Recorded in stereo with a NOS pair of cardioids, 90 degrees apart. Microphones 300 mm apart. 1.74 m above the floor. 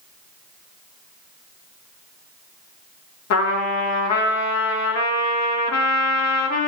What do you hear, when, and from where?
3.3 s a trumpet: 60° left, 1.8 m